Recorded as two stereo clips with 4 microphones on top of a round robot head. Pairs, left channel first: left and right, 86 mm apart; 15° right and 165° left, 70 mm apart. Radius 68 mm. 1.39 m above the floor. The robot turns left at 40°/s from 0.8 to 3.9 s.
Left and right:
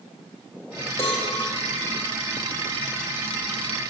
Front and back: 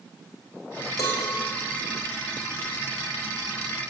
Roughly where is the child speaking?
I don't hear a child speaking.